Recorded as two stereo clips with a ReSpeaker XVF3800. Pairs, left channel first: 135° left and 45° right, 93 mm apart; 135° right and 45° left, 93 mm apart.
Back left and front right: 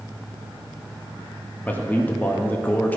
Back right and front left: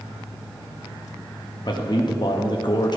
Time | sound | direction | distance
1.6 | a man speaking | 160° right | 0.9 m